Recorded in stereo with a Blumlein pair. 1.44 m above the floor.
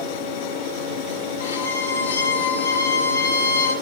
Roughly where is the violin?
Left.